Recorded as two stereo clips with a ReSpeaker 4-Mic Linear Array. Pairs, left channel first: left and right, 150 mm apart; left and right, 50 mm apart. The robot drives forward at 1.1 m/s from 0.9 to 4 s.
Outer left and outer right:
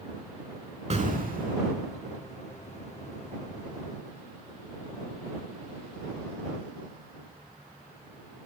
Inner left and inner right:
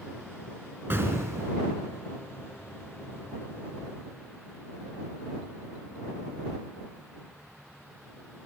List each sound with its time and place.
0.9 s an explosion: 45° right (ahead or behind), 0.7 m; by 1.6 s 50° right (ahead or behind), 0.6 m